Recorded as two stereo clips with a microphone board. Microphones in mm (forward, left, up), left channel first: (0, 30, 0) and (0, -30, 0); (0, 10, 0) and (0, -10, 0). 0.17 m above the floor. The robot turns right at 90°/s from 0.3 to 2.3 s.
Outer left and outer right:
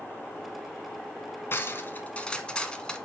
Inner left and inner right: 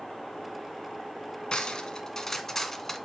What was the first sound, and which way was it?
Cutlery clinking, 85° left.